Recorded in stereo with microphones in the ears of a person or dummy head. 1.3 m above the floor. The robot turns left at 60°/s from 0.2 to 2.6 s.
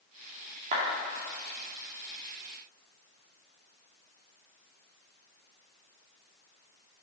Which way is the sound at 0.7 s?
45° right (ahead or behind).